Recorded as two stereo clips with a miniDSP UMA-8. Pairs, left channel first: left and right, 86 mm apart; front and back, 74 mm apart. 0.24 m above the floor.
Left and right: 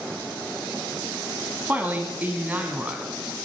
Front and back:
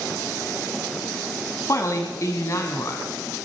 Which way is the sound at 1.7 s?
25° right.